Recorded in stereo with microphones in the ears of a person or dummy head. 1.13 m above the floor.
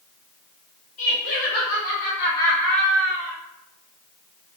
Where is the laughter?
60° left (ahead or behind), 1.1 m; by 3.4 s 15° right (ahead or behind), 1.2 m.